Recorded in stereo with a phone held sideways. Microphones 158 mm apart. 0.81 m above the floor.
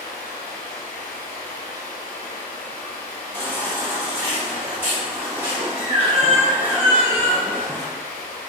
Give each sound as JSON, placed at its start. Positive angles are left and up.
{"t": 0.0, "sound": "running water", "side_deg": 20, "distance_m": 1.2}
{"t": 3.3, "sound": "a baby crying", "side_deg": -10, "distance_m": 1.6}